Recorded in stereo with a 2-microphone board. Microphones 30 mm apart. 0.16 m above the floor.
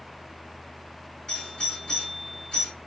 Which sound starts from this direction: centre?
A doorbell, at 1.3 s.